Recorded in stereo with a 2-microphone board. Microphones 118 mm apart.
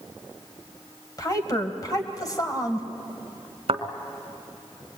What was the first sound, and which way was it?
A woman speaking, 35° left (ahead or behind).